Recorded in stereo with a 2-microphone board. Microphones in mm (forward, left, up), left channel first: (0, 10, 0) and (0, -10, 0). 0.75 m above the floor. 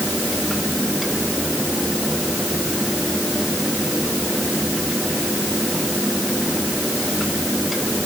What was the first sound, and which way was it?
Only background noise.